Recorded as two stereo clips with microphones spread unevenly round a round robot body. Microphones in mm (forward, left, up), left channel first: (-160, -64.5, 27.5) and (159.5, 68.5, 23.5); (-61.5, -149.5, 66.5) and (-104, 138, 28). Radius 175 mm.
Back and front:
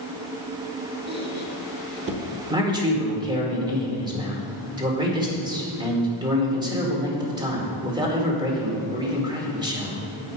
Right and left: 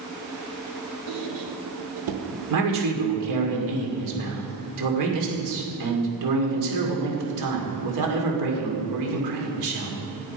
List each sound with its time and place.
1.1 s a squeak: 85° left, 1.1 m
2.5 s a man speaking: 100° left, 2 m